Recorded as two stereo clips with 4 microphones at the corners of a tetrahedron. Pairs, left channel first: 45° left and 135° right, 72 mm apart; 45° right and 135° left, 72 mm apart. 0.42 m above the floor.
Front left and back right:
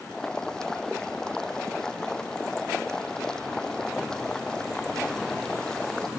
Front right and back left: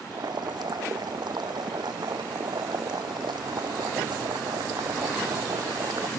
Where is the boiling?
125° left.